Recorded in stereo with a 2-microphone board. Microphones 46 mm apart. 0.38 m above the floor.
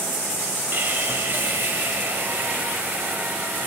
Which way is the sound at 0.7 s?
55° right (ahead or behind).